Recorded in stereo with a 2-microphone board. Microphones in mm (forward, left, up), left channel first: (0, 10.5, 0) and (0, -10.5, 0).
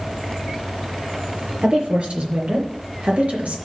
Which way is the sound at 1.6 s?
55° right (ahead or behind).